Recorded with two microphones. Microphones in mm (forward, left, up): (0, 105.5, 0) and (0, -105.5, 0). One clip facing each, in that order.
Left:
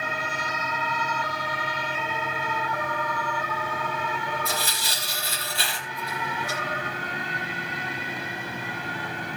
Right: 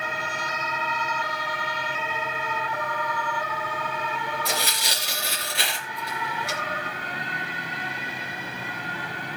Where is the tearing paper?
80° right, 3.5 m.